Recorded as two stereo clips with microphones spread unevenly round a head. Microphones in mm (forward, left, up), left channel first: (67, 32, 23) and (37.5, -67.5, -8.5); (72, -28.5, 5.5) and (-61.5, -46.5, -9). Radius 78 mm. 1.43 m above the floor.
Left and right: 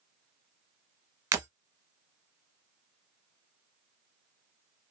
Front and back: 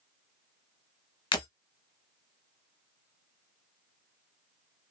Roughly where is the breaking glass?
Ahead right.